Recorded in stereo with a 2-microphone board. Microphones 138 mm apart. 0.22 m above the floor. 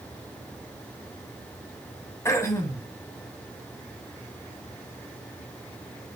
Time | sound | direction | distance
2.2 | throat clearing | 20° left (ahead or behind) | 1.5 m